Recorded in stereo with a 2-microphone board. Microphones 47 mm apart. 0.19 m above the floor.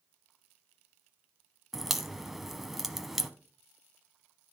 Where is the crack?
5° right (ahead or behind), 0.6 m.